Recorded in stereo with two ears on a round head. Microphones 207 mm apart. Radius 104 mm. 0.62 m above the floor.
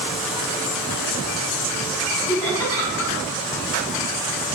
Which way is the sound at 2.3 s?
15° left (ahead or behind).